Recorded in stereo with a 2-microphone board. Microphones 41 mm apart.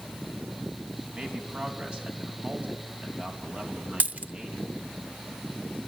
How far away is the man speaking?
About 4 m.